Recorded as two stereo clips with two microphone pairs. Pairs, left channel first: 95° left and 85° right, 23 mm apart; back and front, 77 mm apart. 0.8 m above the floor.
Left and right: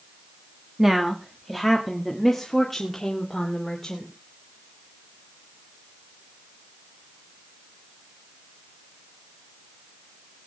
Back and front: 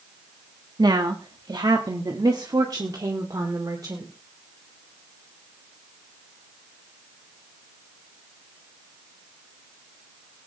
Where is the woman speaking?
5° right, 1.3 m; by 4.1 s 40° left, 2.5 m.